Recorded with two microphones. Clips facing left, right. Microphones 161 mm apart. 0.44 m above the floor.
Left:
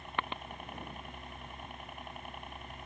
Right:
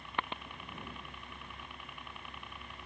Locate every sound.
0.0 s a helicopter: 50° left (ahead or behind)